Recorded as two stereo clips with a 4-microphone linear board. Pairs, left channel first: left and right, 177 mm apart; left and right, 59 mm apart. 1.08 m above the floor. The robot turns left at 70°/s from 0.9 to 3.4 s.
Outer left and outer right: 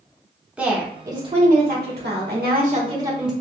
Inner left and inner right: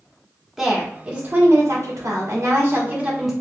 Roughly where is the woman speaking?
Ahead.